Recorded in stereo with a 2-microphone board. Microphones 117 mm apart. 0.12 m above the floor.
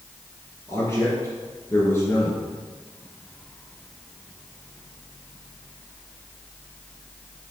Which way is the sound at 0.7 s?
25° left (ahead or behind).